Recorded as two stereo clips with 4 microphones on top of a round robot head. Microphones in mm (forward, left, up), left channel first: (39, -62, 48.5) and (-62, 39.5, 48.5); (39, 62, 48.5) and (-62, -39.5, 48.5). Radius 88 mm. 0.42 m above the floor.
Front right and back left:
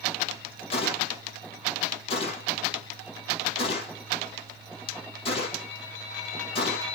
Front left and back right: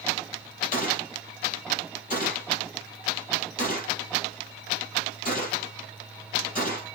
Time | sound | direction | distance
0.7 | a gunshot | 10° left | 6.5 m